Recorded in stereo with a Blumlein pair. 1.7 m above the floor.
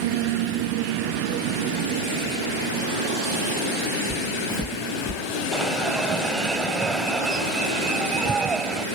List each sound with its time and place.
4.1 s footsteps: straight ahead
5.5 s an alarm: 15° right